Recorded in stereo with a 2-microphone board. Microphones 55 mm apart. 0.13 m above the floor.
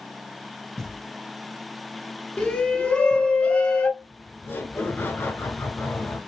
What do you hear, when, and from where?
0.8 s knocking: centre (ahead or behind), 3 m
2.4 s a shout: 20° left (ahead or behind), 1.1 m
4.0 s laughter: 40° left (ahead or behind), 1.4 m